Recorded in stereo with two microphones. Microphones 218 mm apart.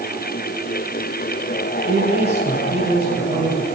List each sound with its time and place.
1.9 s a man speaking: 50° right (ahead or behind), 3.5 m